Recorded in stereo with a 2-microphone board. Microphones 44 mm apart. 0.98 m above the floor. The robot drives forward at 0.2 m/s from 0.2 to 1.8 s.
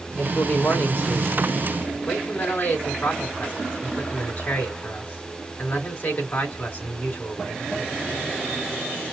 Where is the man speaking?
40° left (ahead or behind), 2.5 m; by 7.7 s 35° left (ahead or behind), 3 m.